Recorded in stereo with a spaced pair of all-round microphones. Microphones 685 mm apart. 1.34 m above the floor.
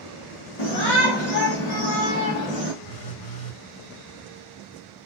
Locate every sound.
0.6 s a shout: 75° left (ahead or behind), 2.0 m; by 2.7 s 70° left (ahead or behind), 1.8 m
2.8 s a phone buzzing: 65° left (ahead or behind), 2 m